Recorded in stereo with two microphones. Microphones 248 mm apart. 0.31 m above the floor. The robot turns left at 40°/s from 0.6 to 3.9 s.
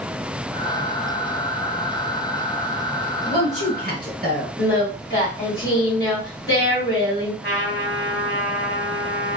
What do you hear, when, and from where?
3.3 s a woman speaking: 25° right (ahead or behind), 1.1 m; by 4.5 s 35° right (ahead or behind), 1.1 m
4.6 s singing: 50° left (ahead or behind), 1.7 m
7.4 s a trumpet: 45° left (ahead or behind), 1.9 m